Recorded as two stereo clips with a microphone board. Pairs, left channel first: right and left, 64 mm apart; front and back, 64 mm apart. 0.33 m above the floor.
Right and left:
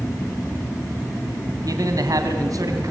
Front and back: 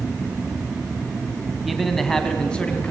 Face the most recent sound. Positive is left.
turn(degrees=70)